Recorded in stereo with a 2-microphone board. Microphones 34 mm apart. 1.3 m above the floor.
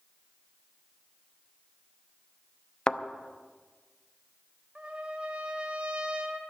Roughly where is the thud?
Left.